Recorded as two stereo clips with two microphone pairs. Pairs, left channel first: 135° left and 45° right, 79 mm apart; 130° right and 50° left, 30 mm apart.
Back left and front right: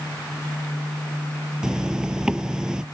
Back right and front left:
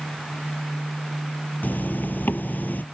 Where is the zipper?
125° right.